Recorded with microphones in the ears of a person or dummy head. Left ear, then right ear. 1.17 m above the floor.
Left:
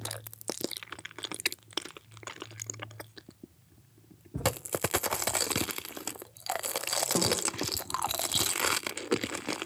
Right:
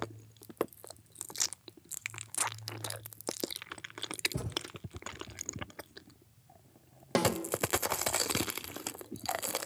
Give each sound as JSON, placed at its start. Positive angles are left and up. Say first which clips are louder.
{"t": 4.3, "sound": "a thud", "louder": "left 12 dB", "side_deg": -75, "distance_m": 4.0}
{"t": 7.2, "sound": "a snare drum", "louder": "right 1 dB", "side_deg": -70, "distance_m": 5.0}